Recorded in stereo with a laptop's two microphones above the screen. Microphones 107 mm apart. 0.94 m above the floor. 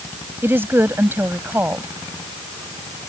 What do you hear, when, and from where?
0.4 s a woman speaking: 20° right (ahead or behind)